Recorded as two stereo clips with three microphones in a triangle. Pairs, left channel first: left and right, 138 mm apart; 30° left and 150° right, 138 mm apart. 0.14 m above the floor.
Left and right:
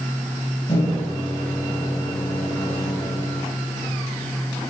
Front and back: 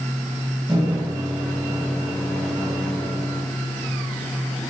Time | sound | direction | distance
0.7 | a microwave | 140° left | 2.5 m